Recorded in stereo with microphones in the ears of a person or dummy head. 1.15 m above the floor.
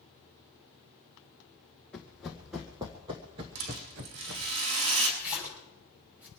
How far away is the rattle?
About 5 m.